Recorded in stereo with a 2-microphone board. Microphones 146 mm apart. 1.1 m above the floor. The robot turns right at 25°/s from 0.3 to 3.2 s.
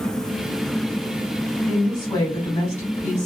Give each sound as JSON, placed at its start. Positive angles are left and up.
{"t": 1.7, "sound": "a woman speaking", "azimuth_deg": 5, "distance_m": 1.8}